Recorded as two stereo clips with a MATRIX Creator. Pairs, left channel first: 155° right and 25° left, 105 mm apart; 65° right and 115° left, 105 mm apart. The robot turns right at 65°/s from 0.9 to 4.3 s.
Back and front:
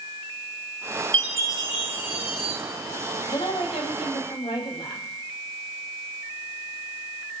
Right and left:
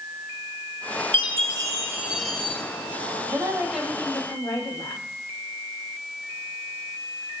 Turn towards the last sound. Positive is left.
turn(degrees=-130)